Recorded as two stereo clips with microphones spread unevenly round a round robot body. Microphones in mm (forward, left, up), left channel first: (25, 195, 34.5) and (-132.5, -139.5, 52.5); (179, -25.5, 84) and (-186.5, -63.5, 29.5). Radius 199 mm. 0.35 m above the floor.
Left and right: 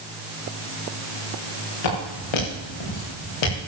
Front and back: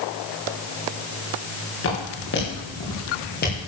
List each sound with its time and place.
1.8 s footsteps: 65° left, 5.5 m; by 3.7 s 75° left, 4.5 m